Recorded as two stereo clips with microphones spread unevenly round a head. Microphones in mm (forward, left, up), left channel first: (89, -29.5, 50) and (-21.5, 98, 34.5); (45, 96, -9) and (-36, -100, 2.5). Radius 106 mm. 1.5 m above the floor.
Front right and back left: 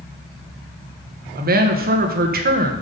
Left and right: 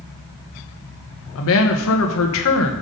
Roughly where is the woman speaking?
Left.